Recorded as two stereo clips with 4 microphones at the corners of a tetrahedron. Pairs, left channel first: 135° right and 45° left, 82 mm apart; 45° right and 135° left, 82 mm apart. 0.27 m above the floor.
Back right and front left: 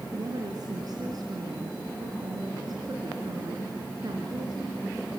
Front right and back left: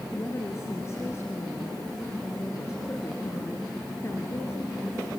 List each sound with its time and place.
0.1 s a woman speaking: 10° left, 3.5 m